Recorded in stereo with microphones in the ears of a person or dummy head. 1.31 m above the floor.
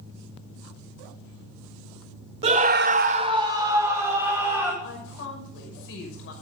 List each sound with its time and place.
2.4 s a scream: 20° right (ahead or behind), 0.8 m; by 4.7 s 10° right (ahead or behind), 2.5 m
4.8 s a woman speaking: 65° left (ahead or behind), 6 m